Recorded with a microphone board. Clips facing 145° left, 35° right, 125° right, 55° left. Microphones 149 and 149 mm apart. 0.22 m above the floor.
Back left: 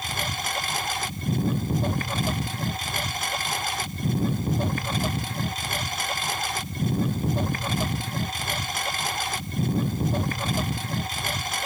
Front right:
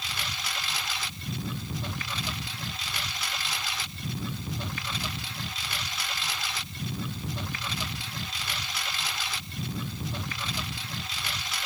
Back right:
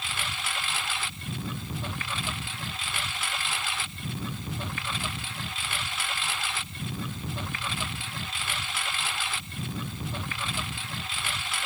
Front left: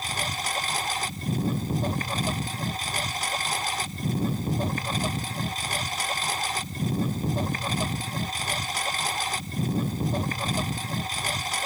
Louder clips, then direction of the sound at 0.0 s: Back left 7 dB, front left 5 dB; 105° left.